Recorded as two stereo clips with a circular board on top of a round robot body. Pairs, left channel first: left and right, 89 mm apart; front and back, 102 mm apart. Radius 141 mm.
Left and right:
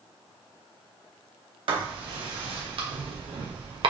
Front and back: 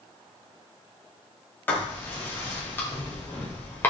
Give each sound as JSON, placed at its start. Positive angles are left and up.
{"t": 1.7, "sound": "writing", "azimuth_deg": -70, "distance_m": 1.5}